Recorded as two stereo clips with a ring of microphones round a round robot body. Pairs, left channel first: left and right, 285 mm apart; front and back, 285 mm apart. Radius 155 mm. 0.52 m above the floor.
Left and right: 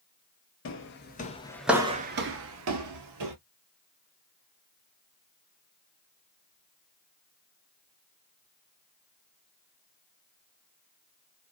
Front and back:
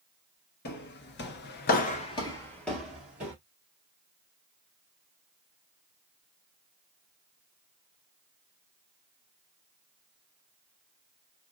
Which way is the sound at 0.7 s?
50° left.